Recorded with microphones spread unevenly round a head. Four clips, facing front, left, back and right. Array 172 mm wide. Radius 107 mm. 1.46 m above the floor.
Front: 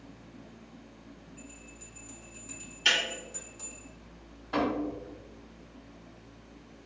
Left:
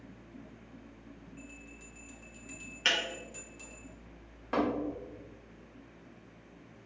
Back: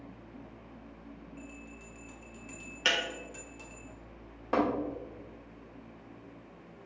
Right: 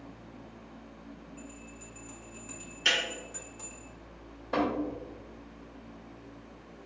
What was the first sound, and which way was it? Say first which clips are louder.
A bell: right 4 dB, back 3 dB; 110° right.